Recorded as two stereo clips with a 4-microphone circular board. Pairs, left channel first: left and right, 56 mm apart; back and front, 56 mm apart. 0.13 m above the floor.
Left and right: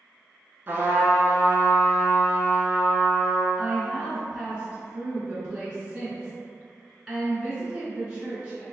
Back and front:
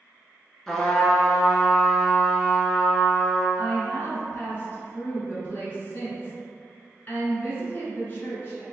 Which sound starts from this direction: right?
A trumpet, at 0.7 s.